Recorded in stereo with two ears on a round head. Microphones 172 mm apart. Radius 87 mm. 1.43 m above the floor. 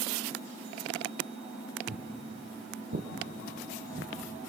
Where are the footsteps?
70° right (ahead or behind), 4.5 m; by 4.1 s 50° right (ahead or behind), 4 m.